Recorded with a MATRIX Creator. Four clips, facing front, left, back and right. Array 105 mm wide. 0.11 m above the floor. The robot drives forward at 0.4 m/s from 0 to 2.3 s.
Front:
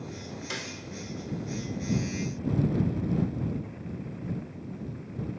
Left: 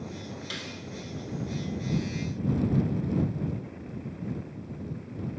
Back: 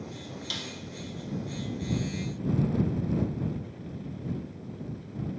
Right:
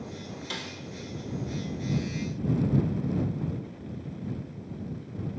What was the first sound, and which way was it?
A snare drum, straight ahead.